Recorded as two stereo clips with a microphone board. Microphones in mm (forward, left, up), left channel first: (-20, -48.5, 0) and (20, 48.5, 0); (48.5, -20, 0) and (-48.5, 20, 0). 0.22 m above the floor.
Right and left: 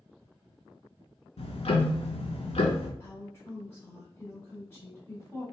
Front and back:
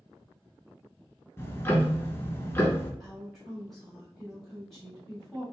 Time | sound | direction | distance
1.4 | ticking | 90° right | 0.5 m
3.0 | a woman speaking | 105° right | 1.0 m